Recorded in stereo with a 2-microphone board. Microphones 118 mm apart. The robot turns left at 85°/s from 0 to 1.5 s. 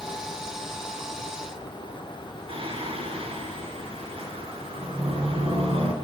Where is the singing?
50° right (ahead or behind), 4.5 m.